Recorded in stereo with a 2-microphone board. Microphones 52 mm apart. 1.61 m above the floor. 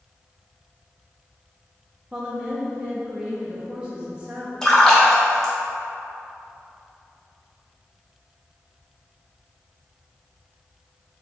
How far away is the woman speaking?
About 0.6 m.